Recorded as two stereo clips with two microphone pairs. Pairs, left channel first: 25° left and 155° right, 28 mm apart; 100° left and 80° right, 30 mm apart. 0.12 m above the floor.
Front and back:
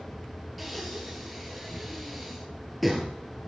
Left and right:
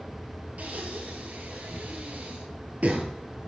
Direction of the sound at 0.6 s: 60° right.